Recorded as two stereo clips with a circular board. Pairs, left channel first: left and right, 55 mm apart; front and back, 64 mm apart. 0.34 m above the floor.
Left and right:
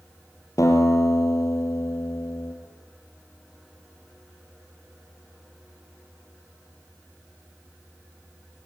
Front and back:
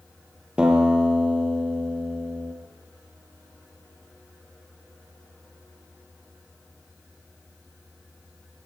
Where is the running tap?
No running tap in this recording.